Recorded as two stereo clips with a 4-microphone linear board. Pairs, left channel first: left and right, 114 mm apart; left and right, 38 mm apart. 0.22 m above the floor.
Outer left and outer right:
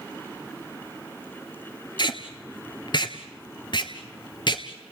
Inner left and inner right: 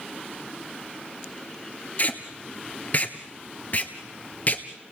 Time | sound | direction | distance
2.0 | tape being pulled | 45° left (ahead or behind) | 1.4 m